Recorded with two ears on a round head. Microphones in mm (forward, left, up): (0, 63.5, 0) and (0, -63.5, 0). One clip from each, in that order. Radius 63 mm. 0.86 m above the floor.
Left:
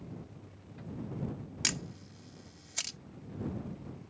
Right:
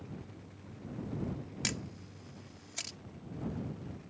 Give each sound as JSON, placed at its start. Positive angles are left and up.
{"t": 1.6, "sound": "a camera shutter", "side_deg": 30}